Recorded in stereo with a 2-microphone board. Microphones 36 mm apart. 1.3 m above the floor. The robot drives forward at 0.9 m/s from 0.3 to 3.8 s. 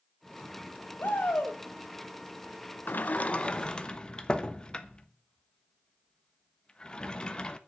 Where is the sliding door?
65° left (ahead or behind), 0.6 m; by 7.6 s 25° left (ahead or behind), 1.2 m.